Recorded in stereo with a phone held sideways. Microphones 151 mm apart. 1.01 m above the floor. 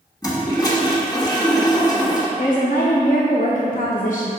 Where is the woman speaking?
60° left (ahead or behind), 0.8 m.